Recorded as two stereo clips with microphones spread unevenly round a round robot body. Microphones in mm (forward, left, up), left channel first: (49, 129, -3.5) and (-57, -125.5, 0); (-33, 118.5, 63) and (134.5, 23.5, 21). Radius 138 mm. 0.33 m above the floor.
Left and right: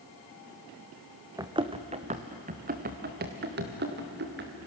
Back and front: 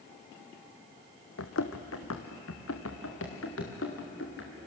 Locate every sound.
1.4 s running footsteps: 170° left, 1.3 m; by 4.6 s 165° right, 4 m